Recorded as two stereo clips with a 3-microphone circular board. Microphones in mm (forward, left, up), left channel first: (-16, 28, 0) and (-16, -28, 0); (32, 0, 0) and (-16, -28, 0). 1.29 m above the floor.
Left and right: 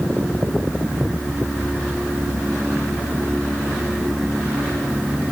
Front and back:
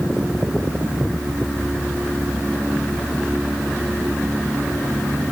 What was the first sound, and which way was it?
Only background noise.